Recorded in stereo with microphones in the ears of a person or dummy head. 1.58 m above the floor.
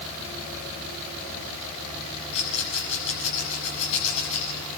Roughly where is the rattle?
Left.